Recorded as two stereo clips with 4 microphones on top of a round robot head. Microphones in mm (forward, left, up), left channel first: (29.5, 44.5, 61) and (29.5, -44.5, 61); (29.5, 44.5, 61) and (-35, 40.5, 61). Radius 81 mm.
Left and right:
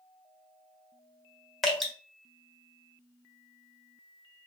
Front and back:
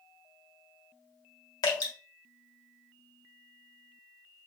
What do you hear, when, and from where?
1.6 s dripping: straight ahead, 1.5 m